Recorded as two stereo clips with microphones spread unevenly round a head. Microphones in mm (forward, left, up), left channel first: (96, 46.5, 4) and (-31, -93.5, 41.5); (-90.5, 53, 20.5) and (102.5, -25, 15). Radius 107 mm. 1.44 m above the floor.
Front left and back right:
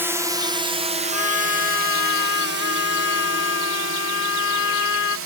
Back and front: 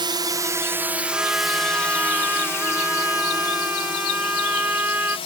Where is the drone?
45° right; by 5.3 s 140° right.